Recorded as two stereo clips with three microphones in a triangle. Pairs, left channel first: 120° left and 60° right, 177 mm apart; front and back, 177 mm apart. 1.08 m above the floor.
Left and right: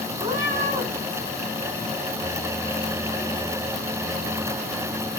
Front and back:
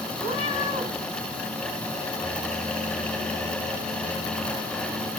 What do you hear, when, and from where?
0.2 s a cat meowing: 125° right, 8 m